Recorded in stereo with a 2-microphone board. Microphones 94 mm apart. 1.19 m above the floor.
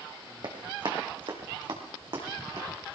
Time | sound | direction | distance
0.4 | running footsteps | 60° right (ahead or behind) | 3 m